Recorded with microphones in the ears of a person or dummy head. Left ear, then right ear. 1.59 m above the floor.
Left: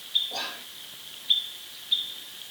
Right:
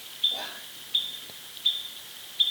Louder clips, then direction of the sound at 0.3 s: Left 1 dB; 60° left (ahead or behind).